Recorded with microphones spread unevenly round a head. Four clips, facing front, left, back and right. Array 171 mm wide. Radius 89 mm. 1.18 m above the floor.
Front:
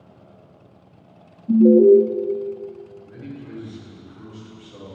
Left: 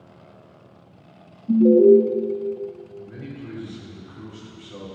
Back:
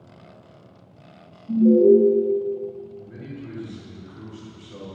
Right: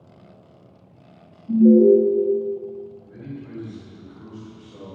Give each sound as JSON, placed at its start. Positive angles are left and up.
{"t": 1.5, "sound": "an alarm", "azimuth_deg": 35, "distance_m": 2.0}
{"t": 3.0, "sound": "a man speaking", "azimuth_deg": 115, "distance_m": 4.5}